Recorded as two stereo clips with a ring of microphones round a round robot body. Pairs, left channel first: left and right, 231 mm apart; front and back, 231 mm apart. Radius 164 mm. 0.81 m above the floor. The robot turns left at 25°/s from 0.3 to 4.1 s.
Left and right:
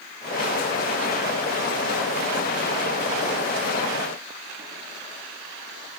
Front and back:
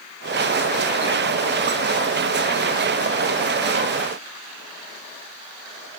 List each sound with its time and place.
Only background noise.